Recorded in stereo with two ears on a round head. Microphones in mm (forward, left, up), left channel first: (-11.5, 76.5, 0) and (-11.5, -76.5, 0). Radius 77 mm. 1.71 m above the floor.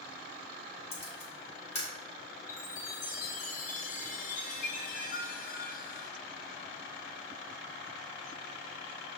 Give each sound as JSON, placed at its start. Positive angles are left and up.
{"t": 0.9, "sound": "a camera shutter", "side_deg": 40, "distance_m": 1.4}
{"t": 2.5, "sound": "a chime", "side_deg": 50, "distance_m": 0.8}